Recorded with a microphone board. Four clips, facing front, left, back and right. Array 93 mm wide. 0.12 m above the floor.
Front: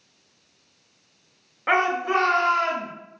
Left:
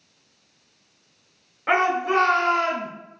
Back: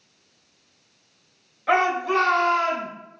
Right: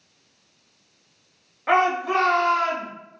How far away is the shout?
About 1.4 m.